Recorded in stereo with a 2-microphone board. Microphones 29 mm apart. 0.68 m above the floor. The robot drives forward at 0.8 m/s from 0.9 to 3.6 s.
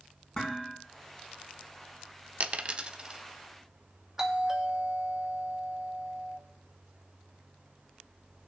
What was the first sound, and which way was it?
Dishes clattering, 30° left (ahead or behind).